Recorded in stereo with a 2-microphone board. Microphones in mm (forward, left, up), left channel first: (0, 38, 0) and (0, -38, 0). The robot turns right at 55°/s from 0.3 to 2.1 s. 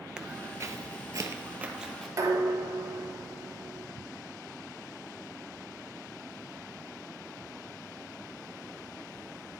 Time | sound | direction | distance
0.2 | footsteps | 10° right (ahead or behind) | 0.7 m
2.2 | dishes clattering | 45° right (ahead or behind) | 2 m